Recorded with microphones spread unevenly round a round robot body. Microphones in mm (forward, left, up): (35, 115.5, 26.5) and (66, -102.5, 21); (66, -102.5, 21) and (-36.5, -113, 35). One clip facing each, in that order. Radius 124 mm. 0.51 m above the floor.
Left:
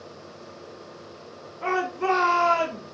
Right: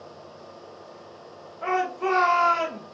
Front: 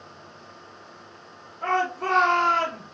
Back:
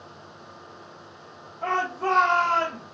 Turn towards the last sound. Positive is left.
turn(degrees=75)